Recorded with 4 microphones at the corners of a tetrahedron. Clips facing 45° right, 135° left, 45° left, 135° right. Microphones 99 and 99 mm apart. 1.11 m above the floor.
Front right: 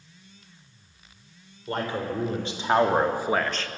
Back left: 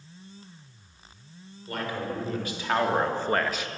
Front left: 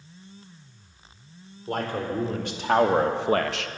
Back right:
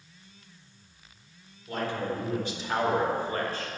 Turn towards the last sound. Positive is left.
turn(degrees=70)